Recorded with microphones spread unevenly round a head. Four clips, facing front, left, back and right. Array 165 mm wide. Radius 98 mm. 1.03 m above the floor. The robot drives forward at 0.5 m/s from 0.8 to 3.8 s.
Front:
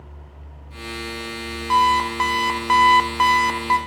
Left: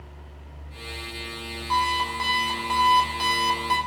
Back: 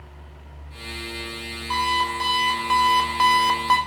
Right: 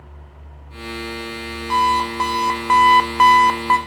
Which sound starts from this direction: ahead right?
An alarm clock, at 1.7 s.